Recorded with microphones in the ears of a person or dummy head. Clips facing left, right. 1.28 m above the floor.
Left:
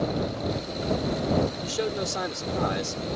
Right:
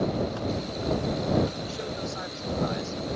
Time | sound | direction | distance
1.6 | a man speaking | 75° left (ahead or behind) | ?